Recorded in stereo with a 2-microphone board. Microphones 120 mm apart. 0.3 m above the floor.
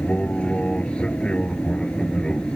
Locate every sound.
0.0 s an aircraft: 10° left (ahead or behind); by 2.6 s 5° left (ahead or behind)